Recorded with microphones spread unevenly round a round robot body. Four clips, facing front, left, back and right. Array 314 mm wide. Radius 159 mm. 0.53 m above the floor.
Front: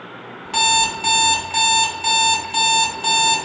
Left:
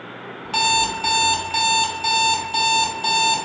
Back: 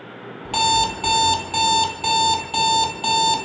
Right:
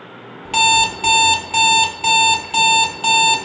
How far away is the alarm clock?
About 0.7 m.